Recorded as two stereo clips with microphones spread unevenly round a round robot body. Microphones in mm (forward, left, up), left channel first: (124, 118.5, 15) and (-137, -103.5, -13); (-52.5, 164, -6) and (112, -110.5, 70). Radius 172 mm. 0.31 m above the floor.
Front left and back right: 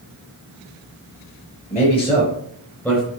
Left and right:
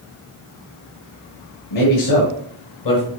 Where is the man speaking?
110° left, 5 m; by 3.1 s 130° left, 3.5 m.